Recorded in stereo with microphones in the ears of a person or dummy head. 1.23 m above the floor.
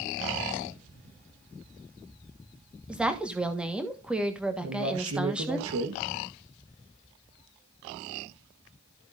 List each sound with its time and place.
2.9 s a woman speaking: 5° right (ahead or behind), 1.4 m
4.6 s a man speaking: 75° right (ahead or behind), 1.3 m